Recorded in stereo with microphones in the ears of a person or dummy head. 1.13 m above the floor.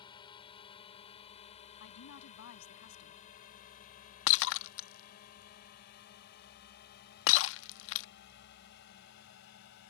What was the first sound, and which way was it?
A drone, 25° left (ahead or behind).